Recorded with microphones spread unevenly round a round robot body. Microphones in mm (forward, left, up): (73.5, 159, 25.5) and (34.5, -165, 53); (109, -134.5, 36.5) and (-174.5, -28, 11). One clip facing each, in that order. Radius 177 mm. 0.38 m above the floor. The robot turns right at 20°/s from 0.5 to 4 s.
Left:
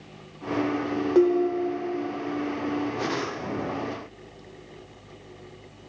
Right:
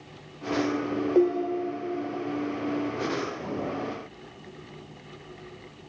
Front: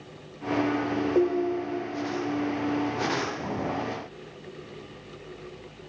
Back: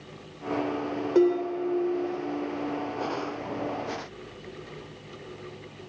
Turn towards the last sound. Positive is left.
turn(degrees=-170)